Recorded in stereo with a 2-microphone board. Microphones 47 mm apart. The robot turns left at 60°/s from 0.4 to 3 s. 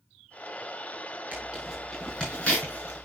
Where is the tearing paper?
30° right (ahead or behind), 6 m; by 3.0 s 70° left (ahead or behind), 6 m.